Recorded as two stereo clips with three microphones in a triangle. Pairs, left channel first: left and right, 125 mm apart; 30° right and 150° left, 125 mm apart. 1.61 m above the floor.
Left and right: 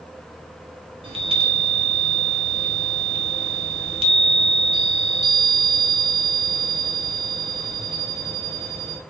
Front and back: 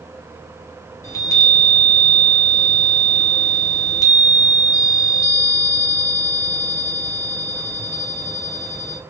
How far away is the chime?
About 0.8 m.